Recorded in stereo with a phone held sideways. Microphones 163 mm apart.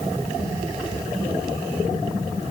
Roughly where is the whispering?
I don't hear whispering.